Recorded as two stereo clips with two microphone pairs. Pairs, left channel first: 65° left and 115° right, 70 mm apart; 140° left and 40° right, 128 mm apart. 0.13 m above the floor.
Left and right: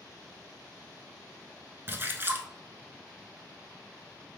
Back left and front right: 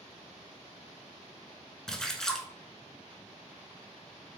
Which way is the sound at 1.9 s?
135° right.